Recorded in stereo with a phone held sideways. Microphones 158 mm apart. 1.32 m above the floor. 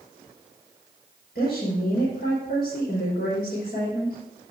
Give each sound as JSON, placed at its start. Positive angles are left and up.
{"t": 1.4, "sound": "a woman speaking", "side_deg": 80, "distance_m": 5.0}